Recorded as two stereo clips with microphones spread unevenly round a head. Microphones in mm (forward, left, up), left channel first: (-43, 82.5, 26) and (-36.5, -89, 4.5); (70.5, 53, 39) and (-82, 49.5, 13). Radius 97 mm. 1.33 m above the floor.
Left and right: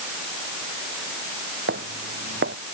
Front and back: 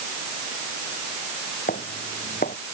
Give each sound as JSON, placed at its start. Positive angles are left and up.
{"t": 1.7, "sound": "footsteps", "azimuth_deg": -50}